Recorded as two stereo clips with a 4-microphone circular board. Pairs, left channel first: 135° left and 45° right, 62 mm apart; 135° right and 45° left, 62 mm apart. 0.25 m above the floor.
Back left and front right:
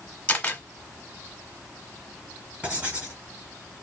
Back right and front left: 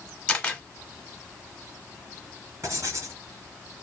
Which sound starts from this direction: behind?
A camera shutter, at 0.3 s.